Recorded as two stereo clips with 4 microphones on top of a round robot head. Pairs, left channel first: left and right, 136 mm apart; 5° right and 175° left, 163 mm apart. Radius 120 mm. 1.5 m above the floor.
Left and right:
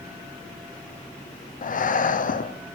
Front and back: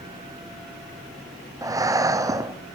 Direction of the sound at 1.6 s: 105° left.